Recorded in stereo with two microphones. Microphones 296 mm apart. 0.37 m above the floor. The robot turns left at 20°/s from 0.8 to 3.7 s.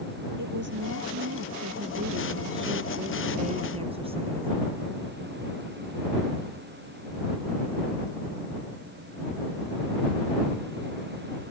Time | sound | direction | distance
0.4 | a woman speaking | 105° right | ?